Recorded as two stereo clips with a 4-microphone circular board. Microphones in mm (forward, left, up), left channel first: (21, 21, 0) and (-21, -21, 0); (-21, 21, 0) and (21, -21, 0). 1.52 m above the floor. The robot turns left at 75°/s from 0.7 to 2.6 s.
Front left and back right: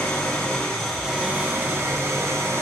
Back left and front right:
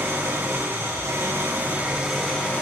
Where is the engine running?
25° right, 6 m; by 2.6 s 170° right, 6 m.